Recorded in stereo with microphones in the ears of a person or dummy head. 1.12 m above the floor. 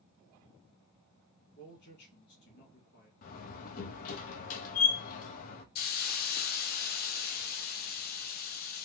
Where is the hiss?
45° left (ahead or behind), 0.7 m.